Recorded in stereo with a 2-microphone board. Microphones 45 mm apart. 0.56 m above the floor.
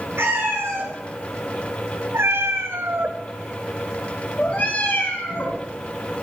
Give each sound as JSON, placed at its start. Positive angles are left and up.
{"t": 0.2, "sound": "a cat meowing", "side_deg": -80, "distance_m": 3.5}